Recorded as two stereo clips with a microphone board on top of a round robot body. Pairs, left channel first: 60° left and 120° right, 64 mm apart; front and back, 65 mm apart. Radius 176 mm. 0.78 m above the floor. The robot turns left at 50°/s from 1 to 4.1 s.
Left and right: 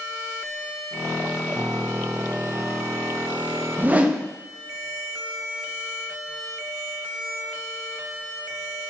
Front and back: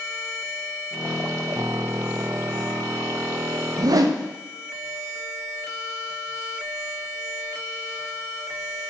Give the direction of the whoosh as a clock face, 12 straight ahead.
6 o'clock.